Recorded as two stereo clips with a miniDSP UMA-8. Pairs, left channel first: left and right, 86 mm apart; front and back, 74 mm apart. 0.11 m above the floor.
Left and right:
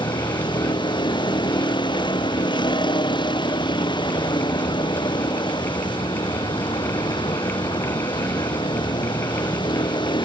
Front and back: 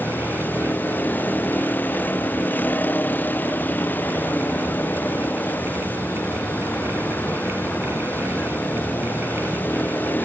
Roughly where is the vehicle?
Ahead left.